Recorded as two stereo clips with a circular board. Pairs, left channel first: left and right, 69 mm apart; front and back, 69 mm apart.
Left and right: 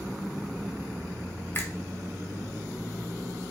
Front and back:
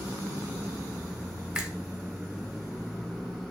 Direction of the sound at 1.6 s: 110° left.